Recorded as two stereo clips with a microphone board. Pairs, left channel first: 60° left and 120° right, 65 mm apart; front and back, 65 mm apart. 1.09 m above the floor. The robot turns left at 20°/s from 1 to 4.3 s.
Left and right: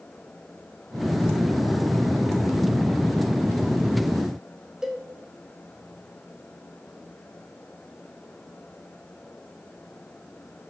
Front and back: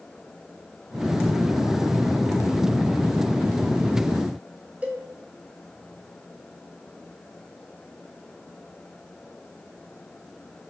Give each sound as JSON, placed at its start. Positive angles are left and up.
{"t": 4.8, "sound": "a cowbell", "azimuth_deg": 175, "distance_m": 0.8}